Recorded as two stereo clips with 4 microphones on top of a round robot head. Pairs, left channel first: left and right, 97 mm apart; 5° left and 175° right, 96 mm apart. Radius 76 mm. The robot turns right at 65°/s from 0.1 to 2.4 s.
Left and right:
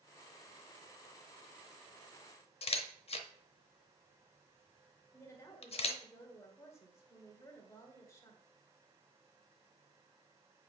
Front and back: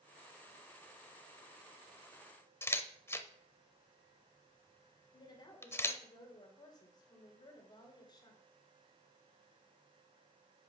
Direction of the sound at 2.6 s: 70° left.